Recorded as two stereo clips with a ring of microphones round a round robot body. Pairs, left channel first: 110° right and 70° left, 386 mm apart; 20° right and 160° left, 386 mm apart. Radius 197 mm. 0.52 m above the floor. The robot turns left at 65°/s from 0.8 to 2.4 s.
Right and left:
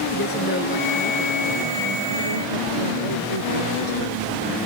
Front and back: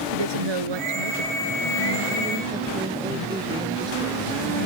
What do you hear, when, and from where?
0.1 s a woman speaking: straight behind; by 4.2 s 80° left